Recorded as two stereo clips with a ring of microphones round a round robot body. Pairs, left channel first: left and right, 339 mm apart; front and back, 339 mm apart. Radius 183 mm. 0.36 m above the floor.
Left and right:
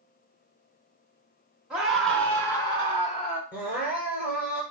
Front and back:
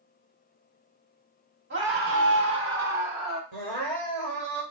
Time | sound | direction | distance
1.7 | a scream | 175° right | 1.4 m
3.5 | crying | 150° left | 3 m